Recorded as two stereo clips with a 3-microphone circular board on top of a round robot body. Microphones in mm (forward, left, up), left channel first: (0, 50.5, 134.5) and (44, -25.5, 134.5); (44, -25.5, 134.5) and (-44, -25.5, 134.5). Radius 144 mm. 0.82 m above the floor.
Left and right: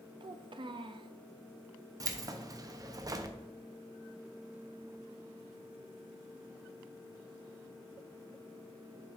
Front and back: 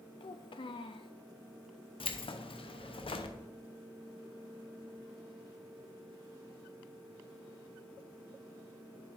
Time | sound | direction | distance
0.2 | a child speaking | 30° right | 0.6 m
2.0 | keys jangling | 10° right | 0.8 m